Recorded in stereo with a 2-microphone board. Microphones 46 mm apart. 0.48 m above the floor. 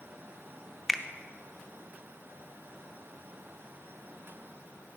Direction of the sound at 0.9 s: Centre (ahead or behind).